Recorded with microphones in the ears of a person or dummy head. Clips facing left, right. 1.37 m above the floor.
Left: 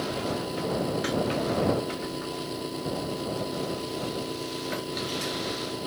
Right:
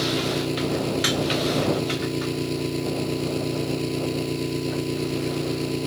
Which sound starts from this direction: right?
An engine running, at 0.0 s.